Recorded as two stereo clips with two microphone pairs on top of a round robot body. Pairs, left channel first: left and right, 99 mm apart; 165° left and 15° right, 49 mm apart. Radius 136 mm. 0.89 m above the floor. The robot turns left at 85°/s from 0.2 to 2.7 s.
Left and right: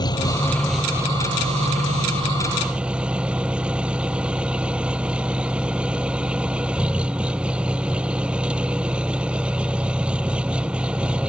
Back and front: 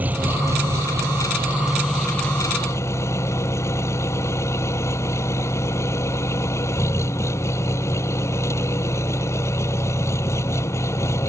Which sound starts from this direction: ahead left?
An engine running, at 0.0 s.